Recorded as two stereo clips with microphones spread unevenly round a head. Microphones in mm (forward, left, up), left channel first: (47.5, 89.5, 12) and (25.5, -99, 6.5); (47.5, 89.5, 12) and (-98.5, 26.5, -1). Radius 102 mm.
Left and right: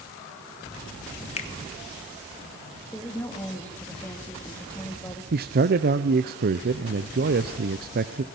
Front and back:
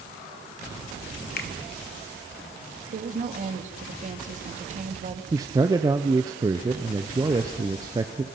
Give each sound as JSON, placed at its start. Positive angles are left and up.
{"t": 1.4, "sound": "a finger snap", "azimuth_deg": 30, "distance_m": 1.5}
{"t": 2.9, "sound": "a woman speaking", "azimuth_deg": 165, "distance_m": 2.5}
{"t": 5.3, "sound": "a man speaking", "azimuth_deg": -85, "distance_m": 0.6}